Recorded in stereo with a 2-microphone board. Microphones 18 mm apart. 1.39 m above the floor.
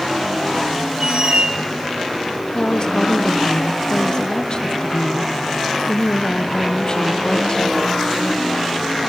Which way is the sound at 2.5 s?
40° left (ahead or behind).